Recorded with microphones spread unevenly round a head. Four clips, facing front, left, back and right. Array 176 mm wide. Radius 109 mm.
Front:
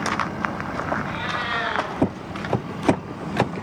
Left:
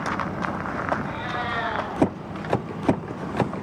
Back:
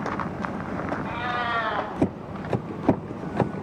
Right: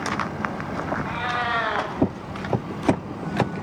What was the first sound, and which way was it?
A cat meowing, 105° right.